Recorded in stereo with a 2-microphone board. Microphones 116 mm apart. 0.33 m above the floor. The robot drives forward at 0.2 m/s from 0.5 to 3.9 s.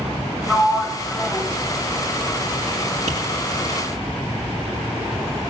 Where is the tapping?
70° right (ahead or behind), 3 m.